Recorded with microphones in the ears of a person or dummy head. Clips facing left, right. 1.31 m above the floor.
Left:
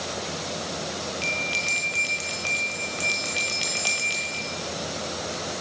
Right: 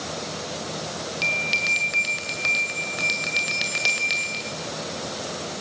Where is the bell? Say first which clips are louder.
Even; 20° right (ahead or behind), 1.2 m.